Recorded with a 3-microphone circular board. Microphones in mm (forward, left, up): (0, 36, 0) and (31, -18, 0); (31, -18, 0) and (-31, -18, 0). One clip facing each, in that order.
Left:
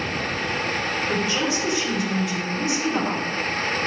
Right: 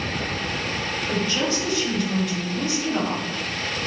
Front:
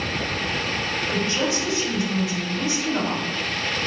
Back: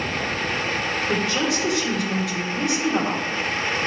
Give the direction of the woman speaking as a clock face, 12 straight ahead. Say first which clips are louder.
Right 1 dB, back 1 dB; 5 o'clock.